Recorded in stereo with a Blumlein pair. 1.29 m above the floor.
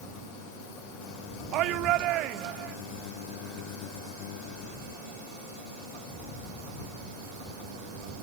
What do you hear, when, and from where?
1.5 s a shout: 40° right